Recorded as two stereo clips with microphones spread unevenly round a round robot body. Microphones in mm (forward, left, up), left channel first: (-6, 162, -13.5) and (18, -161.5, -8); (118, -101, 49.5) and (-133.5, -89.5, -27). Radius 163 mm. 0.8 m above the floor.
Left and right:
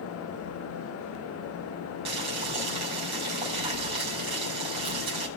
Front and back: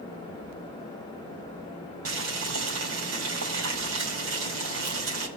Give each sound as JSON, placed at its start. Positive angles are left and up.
{"t": 2.0, "sound": "boiling", "azimuth_deg": -160, "distance_m": 4.5}